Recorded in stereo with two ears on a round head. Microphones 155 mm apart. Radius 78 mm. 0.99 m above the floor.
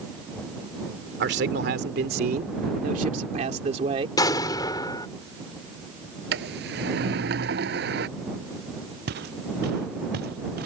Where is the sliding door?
65° right (ahead or behind).